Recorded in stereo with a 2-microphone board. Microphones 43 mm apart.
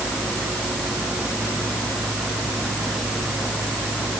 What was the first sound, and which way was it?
Only background noise.